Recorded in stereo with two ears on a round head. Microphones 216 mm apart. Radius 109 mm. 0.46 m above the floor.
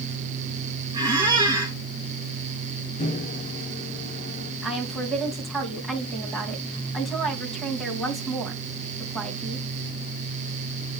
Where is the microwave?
30° left (ahead or behind), 0.9 m.